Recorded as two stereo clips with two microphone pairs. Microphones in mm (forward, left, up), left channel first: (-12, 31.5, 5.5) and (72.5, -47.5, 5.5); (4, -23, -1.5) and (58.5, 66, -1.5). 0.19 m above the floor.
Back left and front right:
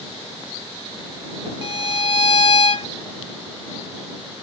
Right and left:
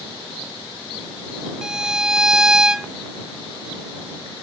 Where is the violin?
140° left.